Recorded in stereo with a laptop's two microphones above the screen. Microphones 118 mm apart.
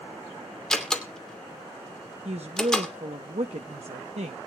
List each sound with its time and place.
0.7 s a door slam: 5° left (ahead or behind), 2.5 m
2.2 s a woman speaking: 65° right (ahead or behind), 0.7 m